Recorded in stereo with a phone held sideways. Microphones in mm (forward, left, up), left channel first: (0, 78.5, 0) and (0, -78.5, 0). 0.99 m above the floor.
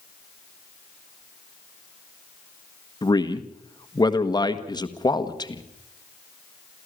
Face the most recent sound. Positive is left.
turn(degrees=25)  # may be behind; listen again after turning